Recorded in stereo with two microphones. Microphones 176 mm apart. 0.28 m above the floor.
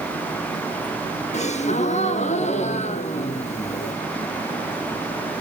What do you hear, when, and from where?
1.3 s a gasp: 40° left (ahead or behind), 1.2 m